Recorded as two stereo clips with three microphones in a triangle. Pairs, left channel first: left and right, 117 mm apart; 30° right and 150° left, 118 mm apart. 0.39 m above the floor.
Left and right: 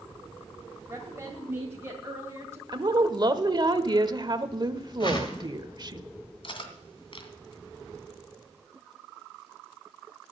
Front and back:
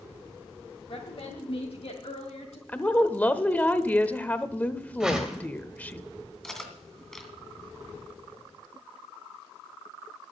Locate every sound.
0.9 s a woman speaking: 30° right, 1.9 m; by 2.6 s 20° right, 3 m
2.7 s a woman speaking: 100° right, 1.0 m
5.0 s a whoosh: 65° left, 2.5 m
6.4 s cutlery clinking: 55° left, 2 m